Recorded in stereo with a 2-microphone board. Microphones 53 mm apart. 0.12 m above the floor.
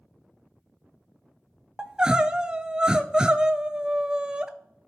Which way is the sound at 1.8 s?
15° right (ahead or behind).